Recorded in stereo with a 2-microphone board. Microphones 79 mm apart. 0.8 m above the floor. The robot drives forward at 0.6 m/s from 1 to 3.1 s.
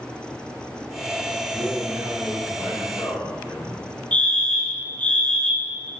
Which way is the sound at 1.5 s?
20° right (ahead or behind).